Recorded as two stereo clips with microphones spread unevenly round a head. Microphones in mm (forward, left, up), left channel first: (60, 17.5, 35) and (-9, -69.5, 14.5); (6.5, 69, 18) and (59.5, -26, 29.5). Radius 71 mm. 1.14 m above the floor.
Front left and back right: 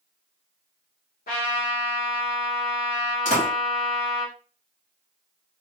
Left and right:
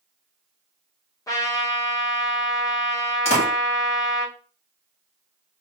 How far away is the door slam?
About 1.7 m.